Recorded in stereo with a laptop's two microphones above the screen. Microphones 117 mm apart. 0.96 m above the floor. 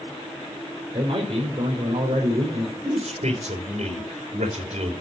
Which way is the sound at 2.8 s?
75° right (ahead or behind).